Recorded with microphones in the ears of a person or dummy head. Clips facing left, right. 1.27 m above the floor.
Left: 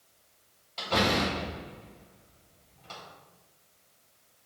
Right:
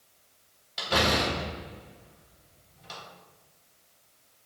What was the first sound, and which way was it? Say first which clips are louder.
A door slam: even; 15° right (ahead or behind).